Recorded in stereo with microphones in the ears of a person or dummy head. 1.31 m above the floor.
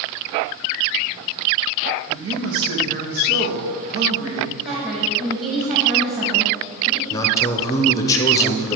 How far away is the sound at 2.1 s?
About 1.5 m.